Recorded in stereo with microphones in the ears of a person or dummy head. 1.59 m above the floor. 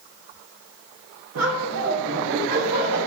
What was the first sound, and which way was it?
Laughter, 85° right.